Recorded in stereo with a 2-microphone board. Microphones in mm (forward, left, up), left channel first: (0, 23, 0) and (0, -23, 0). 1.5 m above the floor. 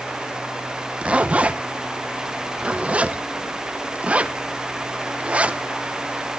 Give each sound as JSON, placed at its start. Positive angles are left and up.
{"t": 1.0, "sound": "a zipper", "side_deg": -25, "distance_m": 0.7}